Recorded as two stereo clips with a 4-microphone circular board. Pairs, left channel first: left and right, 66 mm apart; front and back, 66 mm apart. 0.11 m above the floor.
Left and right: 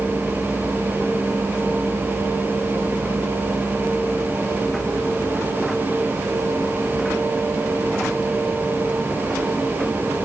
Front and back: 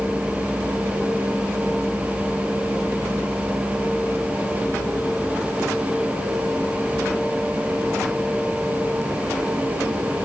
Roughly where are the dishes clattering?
No dishes clattering in this recording.